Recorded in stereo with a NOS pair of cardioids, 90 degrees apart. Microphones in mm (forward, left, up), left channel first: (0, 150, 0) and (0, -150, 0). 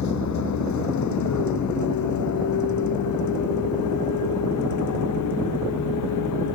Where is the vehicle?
65° left; by 6.6 s 75° left.